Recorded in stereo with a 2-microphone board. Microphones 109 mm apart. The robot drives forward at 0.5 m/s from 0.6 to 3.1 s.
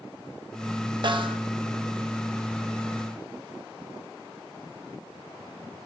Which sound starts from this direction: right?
A snare drum, at 1.0 s.